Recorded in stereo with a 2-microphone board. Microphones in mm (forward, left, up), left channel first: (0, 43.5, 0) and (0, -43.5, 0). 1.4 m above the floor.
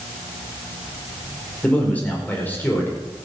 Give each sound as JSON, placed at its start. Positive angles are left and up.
{"t": 1.6, "sound": "a man speaking", "side_deg": 15, "distance_m": 4.5}